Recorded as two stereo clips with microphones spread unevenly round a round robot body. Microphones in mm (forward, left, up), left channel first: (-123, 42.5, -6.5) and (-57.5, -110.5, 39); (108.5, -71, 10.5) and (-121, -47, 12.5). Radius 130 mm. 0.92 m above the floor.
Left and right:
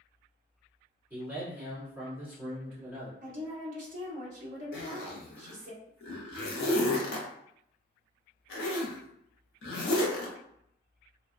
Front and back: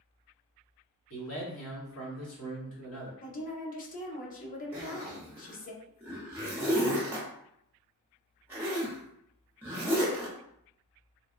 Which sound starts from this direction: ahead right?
A woman speaking, at 3.2 s.